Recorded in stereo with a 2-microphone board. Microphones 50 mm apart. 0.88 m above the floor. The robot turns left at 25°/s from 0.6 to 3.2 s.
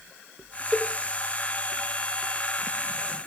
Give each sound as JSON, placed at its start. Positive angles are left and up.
{"t": 0.7, "sound": "a cowbell", "side_deg": 10, "distance_m": 0.8}